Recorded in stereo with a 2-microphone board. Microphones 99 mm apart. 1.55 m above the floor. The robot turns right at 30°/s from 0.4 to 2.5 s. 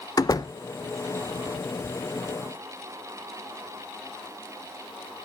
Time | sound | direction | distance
0.2 | a door slam | 40° left (ahead or behind) | 0.7 m